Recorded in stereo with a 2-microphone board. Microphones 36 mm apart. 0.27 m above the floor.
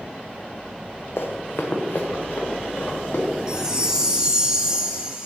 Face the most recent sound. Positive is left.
turn(degrees=-20)  # may be behind; listen again after turning